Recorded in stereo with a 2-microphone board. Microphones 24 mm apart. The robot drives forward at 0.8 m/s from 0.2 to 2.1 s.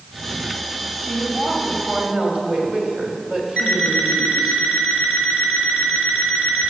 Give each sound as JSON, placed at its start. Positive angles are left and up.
{"t": 1.0, "sound": "a woman speaking", "side_deg": -45, "distance_m": 3.0}
{"t": 3.6, "sound": "an alarm clock", "side_deg": -40, "distance_m": 2.0}